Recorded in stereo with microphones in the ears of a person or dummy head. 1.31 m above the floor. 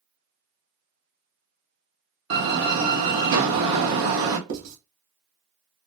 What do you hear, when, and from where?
2.3 s a door slam: 70° right (ahead or behind), 1.0 m
4.5 s writing: 80° right, 1.2 m